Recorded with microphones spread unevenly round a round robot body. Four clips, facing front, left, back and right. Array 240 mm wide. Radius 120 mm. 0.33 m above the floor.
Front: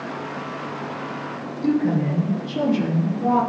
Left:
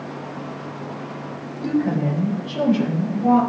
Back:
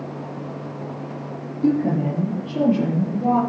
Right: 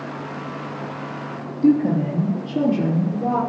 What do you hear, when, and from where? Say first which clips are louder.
1.6 s a woman speaking: right 4 dB, back 1 dB; 135° right, 6 m; by 3.4 s 125° right, 6.5 m